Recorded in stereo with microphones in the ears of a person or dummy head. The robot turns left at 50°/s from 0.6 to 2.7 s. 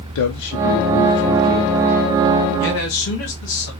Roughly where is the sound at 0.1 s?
Left.